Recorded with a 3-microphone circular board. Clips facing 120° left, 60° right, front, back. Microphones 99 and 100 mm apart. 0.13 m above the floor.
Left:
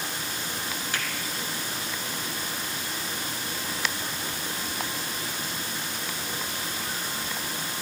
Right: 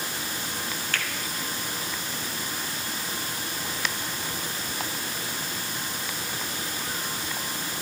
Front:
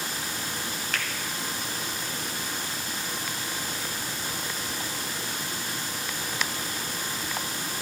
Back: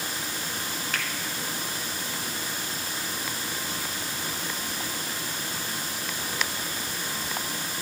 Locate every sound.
0.9 s a finger snap: 95° left, 0.9 m